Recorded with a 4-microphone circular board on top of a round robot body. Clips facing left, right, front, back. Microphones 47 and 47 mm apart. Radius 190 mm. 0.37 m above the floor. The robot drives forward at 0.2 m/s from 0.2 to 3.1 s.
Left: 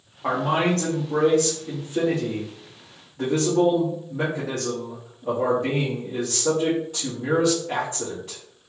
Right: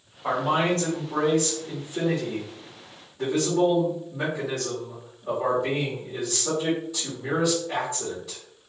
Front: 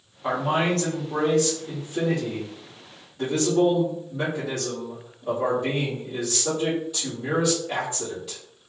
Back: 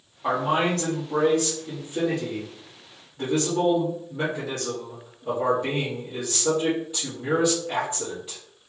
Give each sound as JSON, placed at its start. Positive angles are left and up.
{"t": 0.2, "sound": "a man speaking", "azimuth_deg": 95, "distance_m": 1.9}